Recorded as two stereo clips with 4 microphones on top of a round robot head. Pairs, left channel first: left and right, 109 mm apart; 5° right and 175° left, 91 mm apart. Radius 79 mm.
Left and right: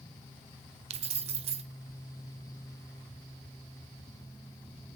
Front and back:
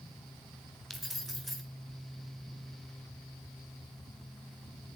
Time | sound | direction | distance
0.9 | keys jangling | 95° right | 1.4 m